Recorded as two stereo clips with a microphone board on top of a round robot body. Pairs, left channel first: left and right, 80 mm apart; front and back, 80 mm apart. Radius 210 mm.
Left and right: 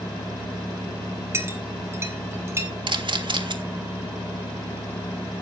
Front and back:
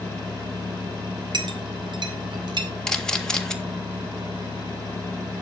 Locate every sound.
1.3 s a clink: 150° right, 1.1 m
2.9 s a camera shutter: 80° right, 1.7 m